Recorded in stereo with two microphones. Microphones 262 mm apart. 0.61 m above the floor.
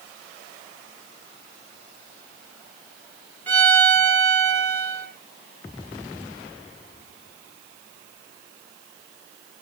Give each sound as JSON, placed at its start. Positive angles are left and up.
{"t": 3.5, "sound": "a violin", "side_deg": 5, "distance_m": 3.5}